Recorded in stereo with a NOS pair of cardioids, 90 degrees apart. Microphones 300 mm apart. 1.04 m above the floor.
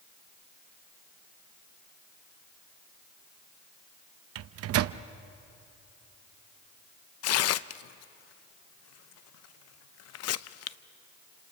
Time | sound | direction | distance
4.3 | a microwave | 60° right | 0.6 m
7.2 | tearing paper | 65° left | 0.6 m